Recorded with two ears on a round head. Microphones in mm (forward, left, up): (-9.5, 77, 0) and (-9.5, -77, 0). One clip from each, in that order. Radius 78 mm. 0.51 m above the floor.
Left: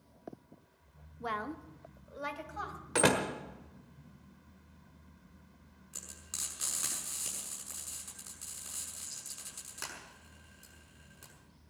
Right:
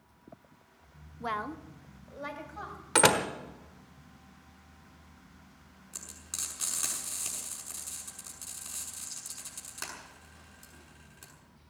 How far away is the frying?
About 6 m.